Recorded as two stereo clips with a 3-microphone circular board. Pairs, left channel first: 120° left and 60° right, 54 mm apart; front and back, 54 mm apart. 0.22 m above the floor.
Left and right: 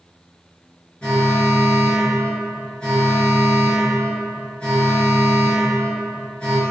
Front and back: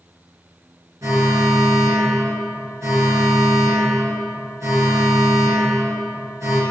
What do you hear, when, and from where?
1.0 s an alarm: 165° right, 3.5 m